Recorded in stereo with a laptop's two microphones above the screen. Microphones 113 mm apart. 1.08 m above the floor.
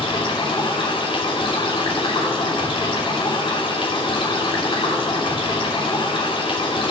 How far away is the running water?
About 3 m.